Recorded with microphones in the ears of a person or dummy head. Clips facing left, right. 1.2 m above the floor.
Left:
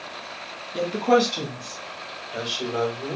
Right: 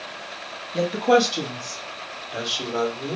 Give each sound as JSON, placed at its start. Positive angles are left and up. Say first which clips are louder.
{"t": 0.7, "sound": "a woman speaking", "louder": "right 1 dB", "side_deg": 0, "distance_m": 1.9}